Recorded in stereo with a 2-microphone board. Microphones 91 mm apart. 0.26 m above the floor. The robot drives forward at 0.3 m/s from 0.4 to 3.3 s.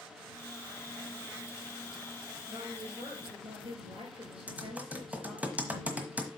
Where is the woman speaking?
75° right (ahead or behind), 4.5 m.